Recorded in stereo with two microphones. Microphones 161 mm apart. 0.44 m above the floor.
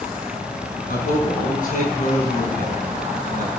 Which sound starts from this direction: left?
A man speaking, at 0.9 s.